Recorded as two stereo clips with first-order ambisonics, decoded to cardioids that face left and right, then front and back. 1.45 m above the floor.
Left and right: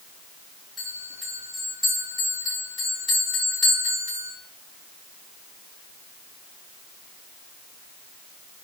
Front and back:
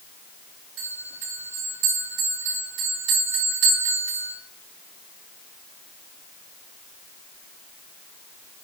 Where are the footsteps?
No footsteps in this recording.